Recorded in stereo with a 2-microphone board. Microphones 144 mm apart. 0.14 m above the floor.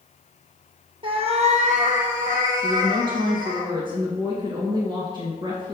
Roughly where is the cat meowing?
Right.